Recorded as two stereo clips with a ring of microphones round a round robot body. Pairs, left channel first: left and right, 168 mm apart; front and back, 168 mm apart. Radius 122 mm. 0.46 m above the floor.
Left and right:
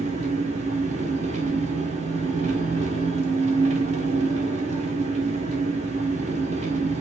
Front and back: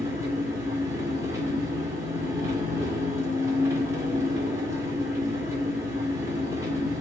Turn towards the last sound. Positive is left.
turn(degrees=-110)